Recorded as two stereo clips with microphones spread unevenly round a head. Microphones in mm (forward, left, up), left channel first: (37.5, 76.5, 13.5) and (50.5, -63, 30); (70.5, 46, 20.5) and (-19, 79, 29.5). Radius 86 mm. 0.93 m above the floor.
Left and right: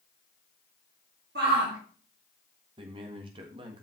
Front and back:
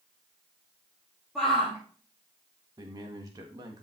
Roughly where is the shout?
Right.